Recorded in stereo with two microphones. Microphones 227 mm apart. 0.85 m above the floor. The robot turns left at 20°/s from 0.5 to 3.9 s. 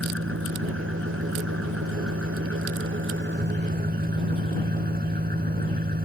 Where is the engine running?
70° right; by 6.0 s 135° right.